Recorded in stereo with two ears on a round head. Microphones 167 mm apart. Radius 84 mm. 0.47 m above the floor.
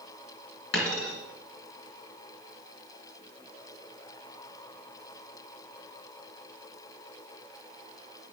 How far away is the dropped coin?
About 2 m.